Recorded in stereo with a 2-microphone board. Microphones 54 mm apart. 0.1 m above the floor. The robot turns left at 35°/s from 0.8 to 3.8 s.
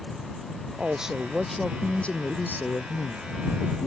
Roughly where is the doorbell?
I don't hear a doorbell.